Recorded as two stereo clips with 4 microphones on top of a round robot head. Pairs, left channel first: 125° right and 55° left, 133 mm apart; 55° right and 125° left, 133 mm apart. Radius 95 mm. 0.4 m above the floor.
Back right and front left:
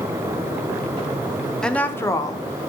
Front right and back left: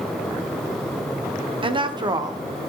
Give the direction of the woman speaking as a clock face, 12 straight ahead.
7 o'clock.